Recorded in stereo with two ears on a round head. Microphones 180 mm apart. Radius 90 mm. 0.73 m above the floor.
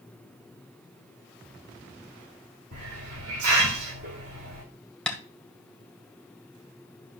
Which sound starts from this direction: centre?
Tapping, at 5.1 s.